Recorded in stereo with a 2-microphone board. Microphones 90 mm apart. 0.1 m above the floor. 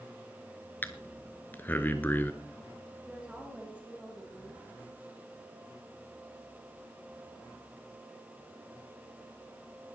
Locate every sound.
0.8 s breathing: 25° left (ahead or behind), 1.2 m
3.0 s a woman speaking: 15° right (ahead or behind), 6 m